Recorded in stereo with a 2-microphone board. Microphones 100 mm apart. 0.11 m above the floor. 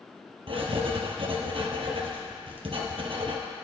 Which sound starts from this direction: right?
Writing, at 0.5 s.